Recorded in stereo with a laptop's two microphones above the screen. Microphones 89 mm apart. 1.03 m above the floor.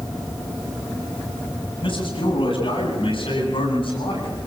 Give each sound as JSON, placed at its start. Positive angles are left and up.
{"t": 1.8, "sound": "a man speaking", "side_deg": 70, "distance_m": 8.0}